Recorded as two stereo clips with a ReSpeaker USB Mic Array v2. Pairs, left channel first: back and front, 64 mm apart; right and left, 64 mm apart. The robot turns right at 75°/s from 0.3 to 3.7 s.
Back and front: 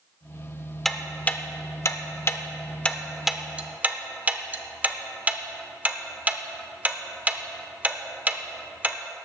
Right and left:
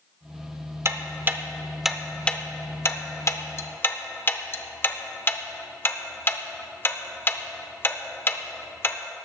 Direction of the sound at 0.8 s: 95° left.